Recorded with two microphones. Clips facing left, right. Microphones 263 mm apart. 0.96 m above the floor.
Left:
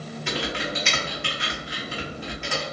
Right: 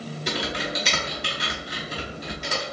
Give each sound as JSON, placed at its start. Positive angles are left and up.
{"t": 0.3, "sound": "typing on a keyboard", "side_deg": -40, "distance_m": 1.5}